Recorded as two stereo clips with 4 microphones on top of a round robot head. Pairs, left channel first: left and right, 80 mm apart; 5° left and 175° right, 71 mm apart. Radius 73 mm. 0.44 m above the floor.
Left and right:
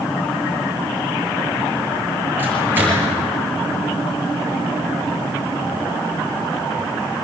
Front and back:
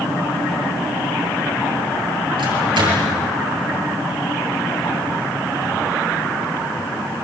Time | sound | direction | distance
2.4 | a microwave | 160° right | 7 m